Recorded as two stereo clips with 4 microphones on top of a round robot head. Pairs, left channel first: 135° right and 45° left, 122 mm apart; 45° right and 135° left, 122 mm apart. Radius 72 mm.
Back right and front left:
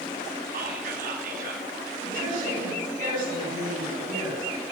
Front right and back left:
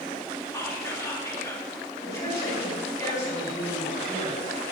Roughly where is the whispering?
Ahead left.